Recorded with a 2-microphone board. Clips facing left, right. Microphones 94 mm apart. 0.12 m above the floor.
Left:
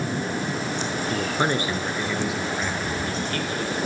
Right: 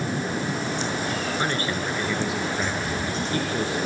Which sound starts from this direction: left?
A man speaking, at 1.1 s.